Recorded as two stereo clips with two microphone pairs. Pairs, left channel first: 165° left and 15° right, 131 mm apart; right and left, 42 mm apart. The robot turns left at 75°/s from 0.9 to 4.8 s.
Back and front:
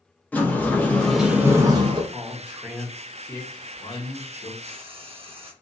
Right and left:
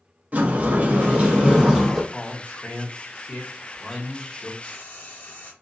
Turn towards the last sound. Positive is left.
turn(degrees=-50)